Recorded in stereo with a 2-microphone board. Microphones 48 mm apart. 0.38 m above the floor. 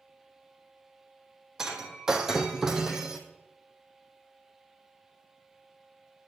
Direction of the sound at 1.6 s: 10° right (ahead or behind).